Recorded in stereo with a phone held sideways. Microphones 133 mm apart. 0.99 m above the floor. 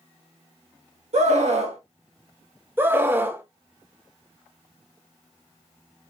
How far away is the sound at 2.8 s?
About 0.9 m.